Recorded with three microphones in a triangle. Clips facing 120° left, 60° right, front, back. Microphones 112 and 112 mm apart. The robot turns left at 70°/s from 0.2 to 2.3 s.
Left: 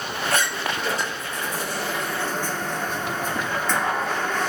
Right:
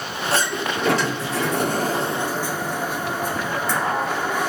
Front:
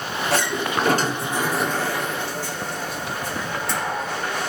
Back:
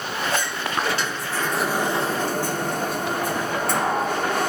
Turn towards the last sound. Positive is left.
turn(degrees=-140)